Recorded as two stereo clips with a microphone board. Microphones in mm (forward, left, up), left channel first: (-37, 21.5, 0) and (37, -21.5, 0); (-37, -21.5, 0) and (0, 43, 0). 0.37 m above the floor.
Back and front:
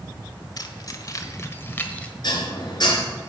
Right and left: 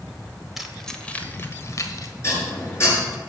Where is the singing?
I don't hear singing.